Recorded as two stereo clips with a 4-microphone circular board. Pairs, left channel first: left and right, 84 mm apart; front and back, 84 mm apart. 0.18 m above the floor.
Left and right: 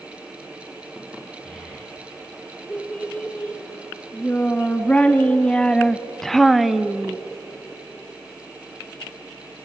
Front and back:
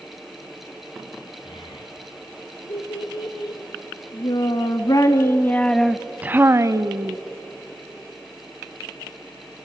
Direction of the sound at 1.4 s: 15° left.